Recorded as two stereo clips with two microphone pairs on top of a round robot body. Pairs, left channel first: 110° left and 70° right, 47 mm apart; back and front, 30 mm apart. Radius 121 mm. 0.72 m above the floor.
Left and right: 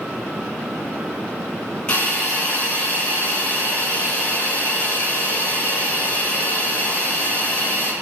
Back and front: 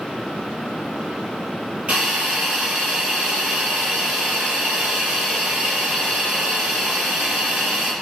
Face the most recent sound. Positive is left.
turn(degrees=50)